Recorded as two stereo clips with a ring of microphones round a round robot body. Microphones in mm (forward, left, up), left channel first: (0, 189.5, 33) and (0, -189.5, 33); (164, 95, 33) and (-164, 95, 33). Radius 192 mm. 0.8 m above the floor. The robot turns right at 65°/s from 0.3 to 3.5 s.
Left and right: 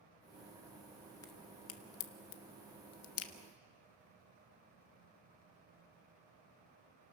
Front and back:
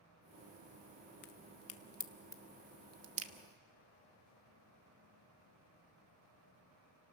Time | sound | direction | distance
1.2 | a crack | 10° left | 1.2 m